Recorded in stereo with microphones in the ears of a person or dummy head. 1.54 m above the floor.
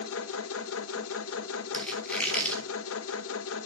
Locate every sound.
0.0 s a machine running: 70° left (ahead or behind), 0.8 m
1.7 s a squeak: 10° left (ahead or behind), 1.9 m